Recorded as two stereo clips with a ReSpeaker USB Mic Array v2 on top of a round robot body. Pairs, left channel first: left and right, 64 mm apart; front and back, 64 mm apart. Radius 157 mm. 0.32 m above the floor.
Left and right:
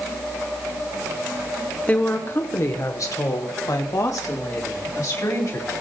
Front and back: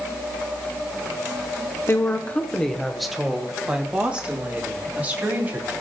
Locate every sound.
1.9 s a woman speaking: 35° left, 1.3 m; by 5.7 s 120° left, 4 m